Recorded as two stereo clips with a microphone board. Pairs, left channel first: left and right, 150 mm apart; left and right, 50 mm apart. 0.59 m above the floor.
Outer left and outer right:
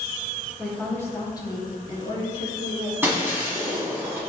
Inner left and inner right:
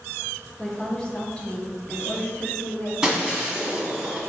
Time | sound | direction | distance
0.6 | a woman speaking | 10° left (ahead or behind) | 0.8 m
3.0 | breaking glass | 15° right (ahead or behind) | 1.4 m